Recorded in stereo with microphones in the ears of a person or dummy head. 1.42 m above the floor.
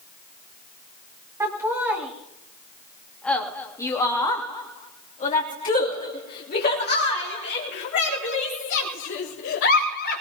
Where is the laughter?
20° right (ahead or behind), 3 m; by 10.2 s 70° left (ahead or behind), 5 m.